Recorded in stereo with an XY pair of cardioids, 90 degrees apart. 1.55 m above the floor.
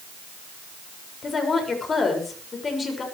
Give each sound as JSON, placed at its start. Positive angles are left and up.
{"t": 1.2, "sound": "a woman speaking", "azimuth_deg": 45, "distance_m": 6.5}